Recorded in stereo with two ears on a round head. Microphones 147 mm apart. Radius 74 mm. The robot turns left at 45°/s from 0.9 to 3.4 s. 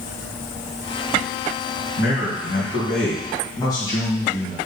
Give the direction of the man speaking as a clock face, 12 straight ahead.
9 o'clock.